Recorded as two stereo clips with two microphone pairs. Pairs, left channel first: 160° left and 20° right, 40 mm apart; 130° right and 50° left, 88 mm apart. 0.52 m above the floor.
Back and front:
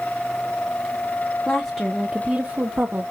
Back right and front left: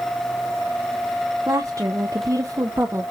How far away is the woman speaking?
About 1.0 m.